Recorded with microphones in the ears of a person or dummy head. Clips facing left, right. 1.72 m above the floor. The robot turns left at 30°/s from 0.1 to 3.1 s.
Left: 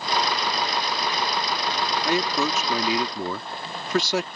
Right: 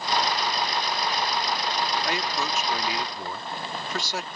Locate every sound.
2.0 s a man speaking: 100° left; by 4.3 s 65° left